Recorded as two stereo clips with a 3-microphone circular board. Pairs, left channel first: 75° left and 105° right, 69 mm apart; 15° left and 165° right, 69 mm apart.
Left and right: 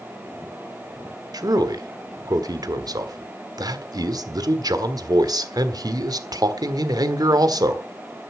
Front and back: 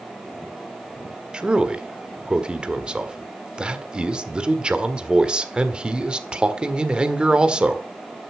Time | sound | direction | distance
1.3 | a man speaking | 90° right | 1.6 m